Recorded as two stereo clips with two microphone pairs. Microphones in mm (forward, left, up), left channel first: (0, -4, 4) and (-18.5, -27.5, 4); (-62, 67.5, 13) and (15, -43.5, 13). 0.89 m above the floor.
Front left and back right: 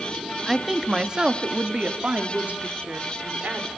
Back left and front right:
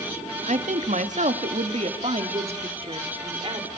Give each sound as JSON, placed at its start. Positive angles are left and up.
{"t": 0.5, "sound": "a woman speaking", "azimuth_deg": -45, "distance_m": 1.8}